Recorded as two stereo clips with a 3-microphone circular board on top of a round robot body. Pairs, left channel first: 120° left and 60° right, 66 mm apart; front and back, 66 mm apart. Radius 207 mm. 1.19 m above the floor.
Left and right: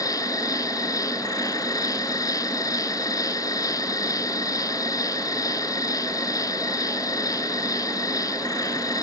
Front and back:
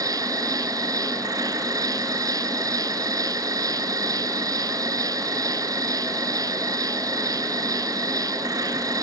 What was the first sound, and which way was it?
An insect, 150° left.